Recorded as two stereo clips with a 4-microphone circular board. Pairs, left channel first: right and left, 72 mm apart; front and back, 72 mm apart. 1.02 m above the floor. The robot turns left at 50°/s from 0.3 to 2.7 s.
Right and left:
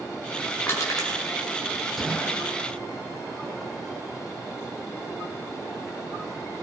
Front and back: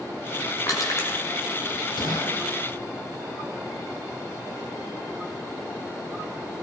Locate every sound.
0.7 s crushing: 35° right, 7 m; by 1.2 s 60° right, 7 m
2.0 s a gunshot: 5° right, 8.5 m; by 2.4 s 25° right, 8.5 m